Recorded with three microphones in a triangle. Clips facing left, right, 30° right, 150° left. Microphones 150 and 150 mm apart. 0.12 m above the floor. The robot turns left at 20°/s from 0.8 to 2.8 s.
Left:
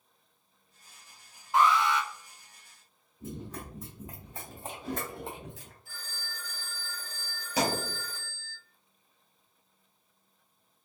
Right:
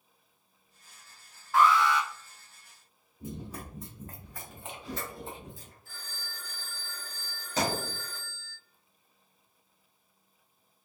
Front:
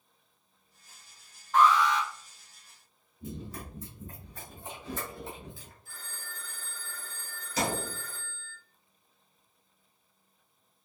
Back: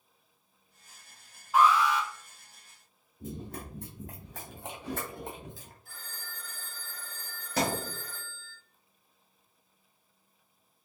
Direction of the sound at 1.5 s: 90° left.